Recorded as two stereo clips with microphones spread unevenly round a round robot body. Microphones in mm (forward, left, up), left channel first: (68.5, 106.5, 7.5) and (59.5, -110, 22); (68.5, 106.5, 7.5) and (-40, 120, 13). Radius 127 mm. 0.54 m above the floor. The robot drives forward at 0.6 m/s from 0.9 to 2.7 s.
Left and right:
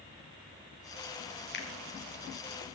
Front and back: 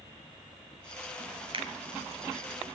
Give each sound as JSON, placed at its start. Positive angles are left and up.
{"t": 1.5, "sound": "a finger snap", "azimuth_deg": 135, "distance_m": 4.0}